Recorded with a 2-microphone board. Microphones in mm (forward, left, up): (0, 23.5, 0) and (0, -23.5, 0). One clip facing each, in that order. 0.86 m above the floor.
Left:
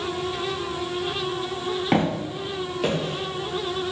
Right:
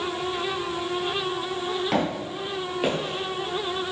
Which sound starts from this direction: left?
Footsteps, at 1.9 s.